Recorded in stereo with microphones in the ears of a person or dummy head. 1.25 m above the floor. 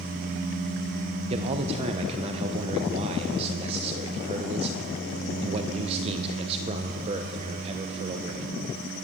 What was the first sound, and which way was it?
A man speaking, 35° right (ahead or behind).